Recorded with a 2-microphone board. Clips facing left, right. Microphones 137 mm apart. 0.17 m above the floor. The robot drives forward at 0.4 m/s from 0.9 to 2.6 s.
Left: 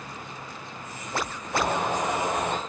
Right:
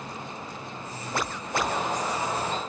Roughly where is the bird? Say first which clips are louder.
Left 2 dB; left.